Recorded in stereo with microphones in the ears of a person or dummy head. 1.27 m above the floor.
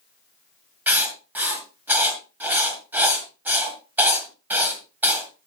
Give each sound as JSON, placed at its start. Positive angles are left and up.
{"t": 0.9, "sound": "writing", "side_deg": -10, "distance_m": 1.6}